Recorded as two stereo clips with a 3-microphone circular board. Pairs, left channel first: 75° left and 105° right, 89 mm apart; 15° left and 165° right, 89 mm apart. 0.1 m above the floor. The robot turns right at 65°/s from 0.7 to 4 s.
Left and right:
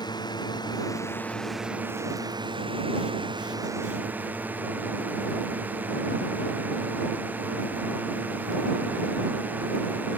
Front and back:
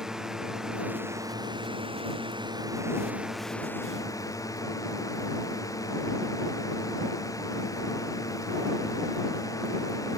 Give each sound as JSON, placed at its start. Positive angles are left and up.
{"t": 0.0, "sound": "a drone", "azimuth_deg": 110}